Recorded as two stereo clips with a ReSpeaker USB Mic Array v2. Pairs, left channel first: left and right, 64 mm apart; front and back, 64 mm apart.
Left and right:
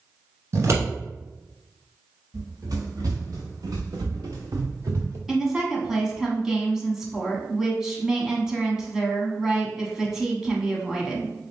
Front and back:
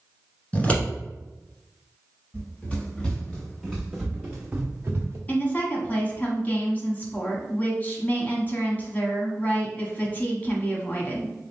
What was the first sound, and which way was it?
Scissors, 65° right.